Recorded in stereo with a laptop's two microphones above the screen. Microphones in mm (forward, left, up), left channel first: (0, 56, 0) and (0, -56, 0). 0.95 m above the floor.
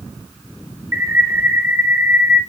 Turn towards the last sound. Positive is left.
turn(degrees=-25)  # may be behind; listen again after turning